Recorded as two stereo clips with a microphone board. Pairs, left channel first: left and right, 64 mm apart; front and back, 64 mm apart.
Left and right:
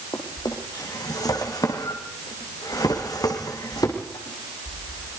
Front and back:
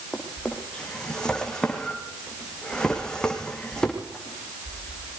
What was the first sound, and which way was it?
A drawer, 80° left.